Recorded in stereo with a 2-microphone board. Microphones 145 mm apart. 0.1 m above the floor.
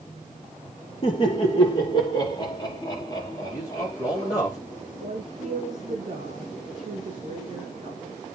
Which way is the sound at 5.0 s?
55° right (ahead or behind).